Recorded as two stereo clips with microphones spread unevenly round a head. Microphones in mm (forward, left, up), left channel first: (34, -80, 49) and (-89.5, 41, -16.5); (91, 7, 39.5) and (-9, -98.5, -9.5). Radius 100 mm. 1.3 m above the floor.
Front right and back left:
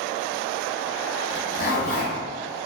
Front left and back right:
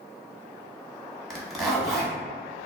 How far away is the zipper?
About 1.0 m.